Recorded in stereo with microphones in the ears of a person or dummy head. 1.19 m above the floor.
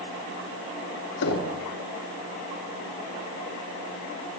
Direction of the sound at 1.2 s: 80° left.